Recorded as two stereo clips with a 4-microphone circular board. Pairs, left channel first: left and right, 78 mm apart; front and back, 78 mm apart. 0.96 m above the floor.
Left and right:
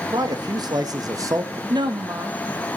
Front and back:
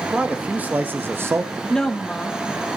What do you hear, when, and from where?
0.1 s a man speaking: 105° right, 1.6 m; by 1.6 s 135° right, 1.1 m
1.7 s a woman speaking: 80° right, 1.4 m